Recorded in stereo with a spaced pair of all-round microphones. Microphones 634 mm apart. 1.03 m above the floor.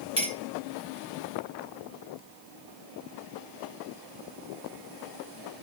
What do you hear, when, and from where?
0.2 s a clink: 50° left (ahead or behind), 1.5 m